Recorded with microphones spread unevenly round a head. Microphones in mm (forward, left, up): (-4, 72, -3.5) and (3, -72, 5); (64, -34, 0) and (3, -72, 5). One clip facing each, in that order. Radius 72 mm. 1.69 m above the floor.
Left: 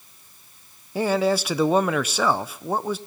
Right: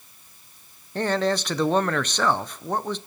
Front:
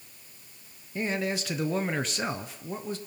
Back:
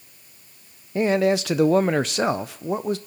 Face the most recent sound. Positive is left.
turn(degrees=175)